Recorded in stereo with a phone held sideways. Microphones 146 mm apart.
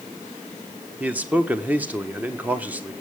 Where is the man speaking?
10° right (ahead or behind), 1.3 m.